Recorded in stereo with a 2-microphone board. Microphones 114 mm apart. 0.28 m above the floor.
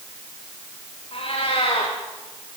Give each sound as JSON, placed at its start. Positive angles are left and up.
{"t": 1.1, "sound": "a cat meowing", "side_deg": 55, "distance_m": 8.0}